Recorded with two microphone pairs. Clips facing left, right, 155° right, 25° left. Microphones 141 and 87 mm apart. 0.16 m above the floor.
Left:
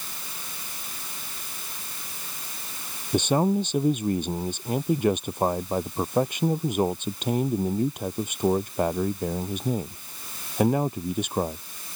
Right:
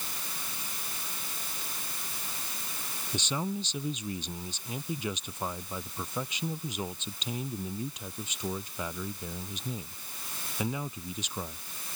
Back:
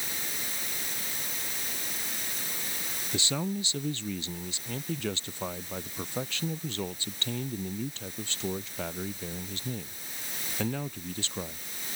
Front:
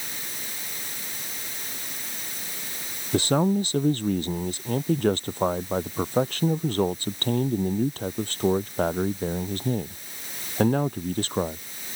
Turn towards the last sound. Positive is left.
turn(degrees=60)